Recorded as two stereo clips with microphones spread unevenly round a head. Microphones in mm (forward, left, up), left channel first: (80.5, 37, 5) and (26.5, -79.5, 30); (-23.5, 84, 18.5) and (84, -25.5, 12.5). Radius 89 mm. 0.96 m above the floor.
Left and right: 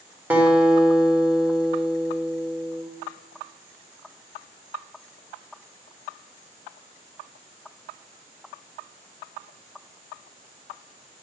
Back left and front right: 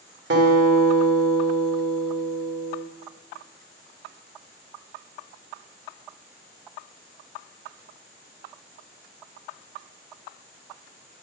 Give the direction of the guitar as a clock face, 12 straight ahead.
1 o'clock.